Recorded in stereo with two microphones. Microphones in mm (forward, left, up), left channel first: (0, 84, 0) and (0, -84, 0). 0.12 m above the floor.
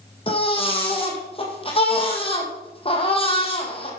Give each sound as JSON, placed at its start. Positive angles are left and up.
{"t": 0.3, "sound": "a baby crying", "side_deg": 35, "distance_m": 2.0}